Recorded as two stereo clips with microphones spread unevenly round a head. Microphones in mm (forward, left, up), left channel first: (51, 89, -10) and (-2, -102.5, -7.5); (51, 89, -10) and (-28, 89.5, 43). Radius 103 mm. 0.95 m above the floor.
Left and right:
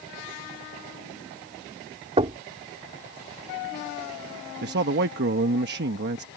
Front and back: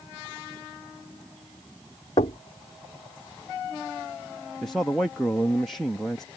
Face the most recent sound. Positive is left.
turn(degrees=-75)